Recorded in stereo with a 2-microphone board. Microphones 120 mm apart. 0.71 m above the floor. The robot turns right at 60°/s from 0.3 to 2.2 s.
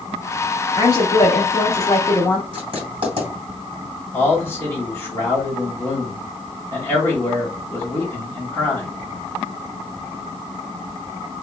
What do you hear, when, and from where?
0.7 s a woman speaking: 55° left, 0.7 m; by 2.4 s 145° left, 0.7 m
2.5 s writing: 50° right (ahead or behind), 1.7 m
4.1 s a man speaking: 20° left (ahead or behind), 1.4 m